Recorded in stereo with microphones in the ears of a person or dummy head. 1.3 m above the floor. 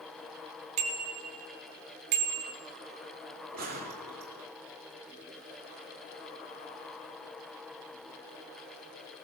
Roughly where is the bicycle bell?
Right.